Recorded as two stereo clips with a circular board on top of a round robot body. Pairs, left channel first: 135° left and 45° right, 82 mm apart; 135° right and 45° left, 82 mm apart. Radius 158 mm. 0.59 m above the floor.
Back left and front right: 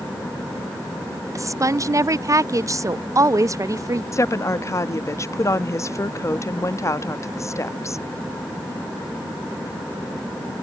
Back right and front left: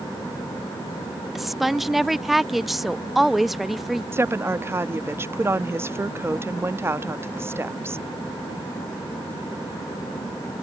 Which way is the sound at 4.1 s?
95° left.